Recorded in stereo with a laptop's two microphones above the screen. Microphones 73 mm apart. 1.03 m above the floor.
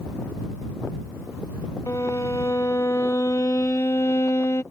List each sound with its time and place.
1.9 s a violin: 45° left (ahead or behind)